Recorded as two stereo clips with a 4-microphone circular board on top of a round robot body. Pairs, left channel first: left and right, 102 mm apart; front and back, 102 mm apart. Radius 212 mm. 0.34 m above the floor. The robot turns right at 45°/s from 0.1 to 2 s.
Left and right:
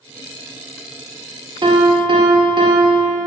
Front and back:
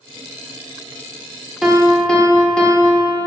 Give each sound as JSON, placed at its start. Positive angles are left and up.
{"t": 1.6, "sound": "a piano", "azimuth_deg": -95, "distance_m": 1.9}